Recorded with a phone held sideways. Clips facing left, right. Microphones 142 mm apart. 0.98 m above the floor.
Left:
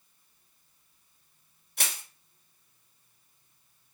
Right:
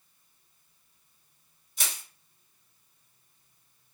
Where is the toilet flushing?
No toilet flushing in this recording.